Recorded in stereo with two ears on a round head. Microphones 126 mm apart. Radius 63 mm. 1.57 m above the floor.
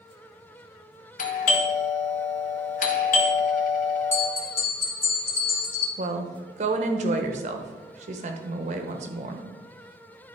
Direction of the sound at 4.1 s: 15° left (ahead or behind).